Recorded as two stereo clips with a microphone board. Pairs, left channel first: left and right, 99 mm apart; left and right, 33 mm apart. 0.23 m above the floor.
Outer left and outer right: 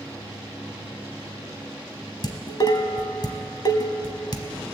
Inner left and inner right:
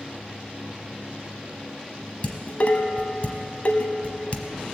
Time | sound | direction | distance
2.2 | dishes clattering | 45° left (ahead or behind) | 0.9 m